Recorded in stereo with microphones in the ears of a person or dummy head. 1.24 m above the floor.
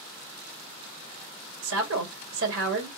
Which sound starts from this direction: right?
A woman speaking, at 1.6 s.